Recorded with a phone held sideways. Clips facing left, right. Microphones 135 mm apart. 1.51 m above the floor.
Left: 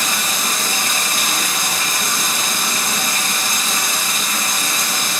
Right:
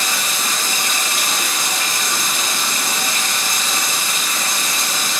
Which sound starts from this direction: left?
Running water, at 0.0 s.